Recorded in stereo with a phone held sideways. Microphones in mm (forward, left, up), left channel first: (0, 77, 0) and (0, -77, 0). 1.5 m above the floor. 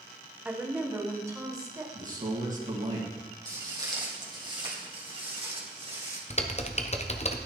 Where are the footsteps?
20° right (ahead or behind), 3 m; by 6.2 s 40° right (ahead or behind), 4 m.